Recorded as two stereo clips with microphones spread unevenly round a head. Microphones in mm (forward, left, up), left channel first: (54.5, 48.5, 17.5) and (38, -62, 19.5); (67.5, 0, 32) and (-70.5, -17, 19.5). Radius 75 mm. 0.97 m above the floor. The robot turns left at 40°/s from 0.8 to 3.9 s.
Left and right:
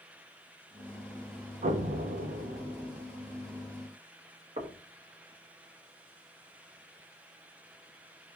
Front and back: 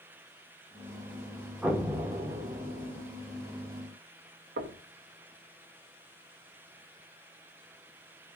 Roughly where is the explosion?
Right.